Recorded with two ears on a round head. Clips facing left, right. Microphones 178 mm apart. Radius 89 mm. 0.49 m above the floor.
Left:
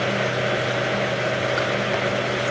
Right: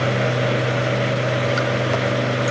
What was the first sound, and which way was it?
Running water, 55° right (ahead or behind).